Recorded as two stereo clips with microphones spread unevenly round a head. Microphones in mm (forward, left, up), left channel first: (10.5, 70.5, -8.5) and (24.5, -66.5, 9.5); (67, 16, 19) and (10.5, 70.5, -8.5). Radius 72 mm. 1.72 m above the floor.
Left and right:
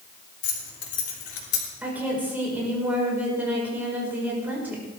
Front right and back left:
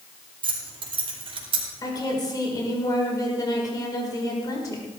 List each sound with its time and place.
0.4 s keys jangling: 115° left, 3.5 m
1.8 s a woman speaking: 5° right, 5.5 m